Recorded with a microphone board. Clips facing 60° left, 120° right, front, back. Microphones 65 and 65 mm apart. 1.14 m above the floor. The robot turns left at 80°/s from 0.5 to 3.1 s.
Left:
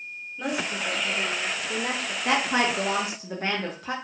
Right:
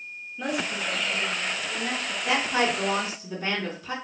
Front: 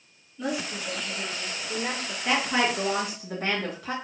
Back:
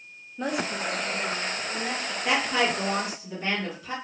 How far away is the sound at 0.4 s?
About 0.7 m.